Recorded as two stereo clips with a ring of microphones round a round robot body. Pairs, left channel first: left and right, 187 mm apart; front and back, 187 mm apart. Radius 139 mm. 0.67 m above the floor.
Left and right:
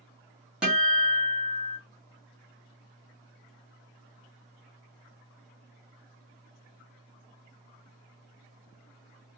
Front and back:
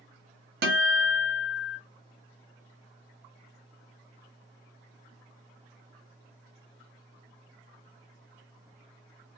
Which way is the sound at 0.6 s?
175° right.